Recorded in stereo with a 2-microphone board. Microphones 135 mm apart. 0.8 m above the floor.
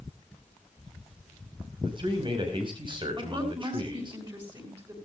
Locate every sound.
1.8 s a man speaking: 35° right (ahead or behind), 5 m
3.2 s a woman speaking: 35° right (ahead or behind), 7 m